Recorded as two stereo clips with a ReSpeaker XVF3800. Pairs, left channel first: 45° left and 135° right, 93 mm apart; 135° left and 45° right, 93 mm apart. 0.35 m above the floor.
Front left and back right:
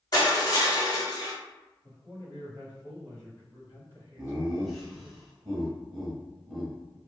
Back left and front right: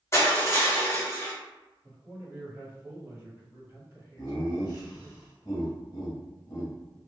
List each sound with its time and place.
0.1 s crushing: 80° left, 1.1 m
1.8 s a man speaking: 5° left, 1.7 m
4.2 s laughter: 135° left, 1.3 m